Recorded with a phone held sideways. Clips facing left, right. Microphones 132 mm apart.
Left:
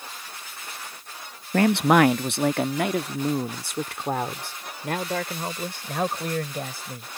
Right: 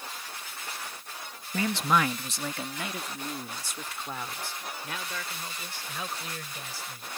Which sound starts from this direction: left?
A man speaking, at 1.5 s.